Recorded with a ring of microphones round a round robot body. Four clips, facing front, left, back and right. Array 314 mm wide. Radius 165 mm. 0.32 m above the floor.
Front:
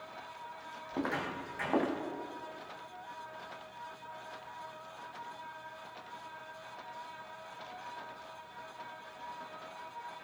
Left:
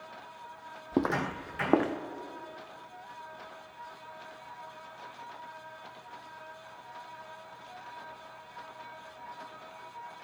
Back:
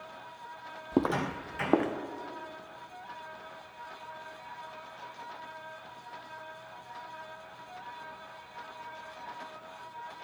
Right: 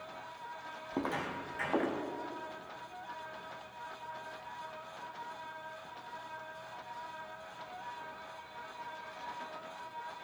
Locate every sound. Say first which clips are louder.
0.9 s footsteps: left 7 dB, back 7 dB; 145° left, 0.7 m; by 1.9 s 125° left, 1.6 m